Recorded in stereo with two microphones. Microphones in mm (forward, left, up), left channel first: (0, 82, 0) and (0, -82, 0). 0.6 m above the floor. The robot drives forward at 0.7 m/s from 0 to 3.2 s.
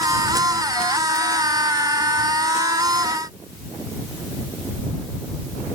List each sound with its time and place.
Only background noise.